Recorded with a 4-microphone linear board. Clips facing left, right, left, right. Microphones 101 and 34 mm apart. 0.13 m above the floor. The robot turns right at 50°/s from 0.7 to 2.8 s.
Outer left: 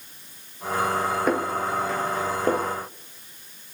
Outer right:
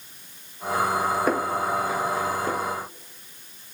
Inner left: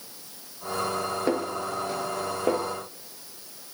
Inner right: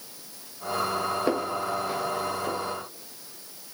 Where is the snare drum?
Centre (ahead or behind), 1.0 m; by 2.7 s 60° left (ahead or behind), 1.0 m.